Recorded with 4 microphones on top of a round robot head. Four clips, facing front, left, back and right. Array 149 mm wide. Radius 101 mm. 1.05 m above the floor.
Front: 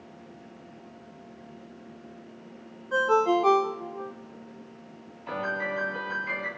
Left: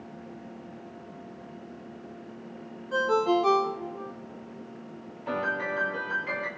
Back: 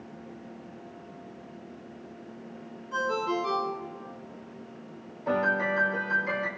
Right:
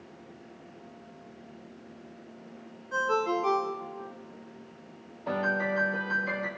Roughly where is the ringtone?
Ahead left.